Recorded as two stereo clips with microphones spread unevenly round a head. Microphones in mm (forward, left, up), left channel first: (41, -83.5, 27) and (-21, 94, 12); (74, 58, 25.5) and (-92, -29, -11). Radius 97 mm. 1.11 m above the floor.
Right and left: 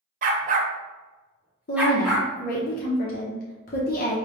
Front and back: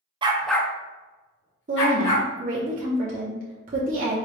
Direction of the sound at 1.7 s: 115° right.